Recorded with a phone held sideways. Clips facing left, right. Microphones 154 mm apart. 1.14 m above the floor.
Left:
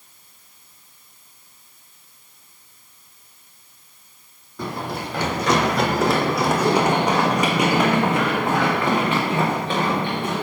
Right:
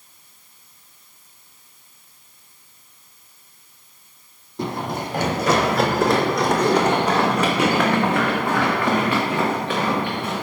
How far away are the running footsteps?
About 1.7 m.